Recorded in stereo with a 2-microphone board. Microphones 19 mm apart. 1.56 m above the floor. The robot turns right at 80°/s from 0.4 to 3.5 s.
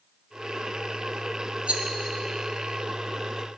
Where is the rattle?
85° right, 0.7 m; by 1.8 s 70° right (ahead or behind), 0.7 m.